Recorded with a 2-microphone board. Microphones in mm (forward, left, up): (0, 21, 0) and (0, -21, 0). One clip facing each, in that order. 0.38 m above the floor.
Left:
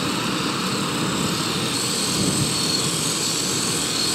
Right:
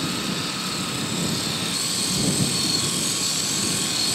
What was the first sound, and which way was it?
An aircraft, 45° left (ahead or behind).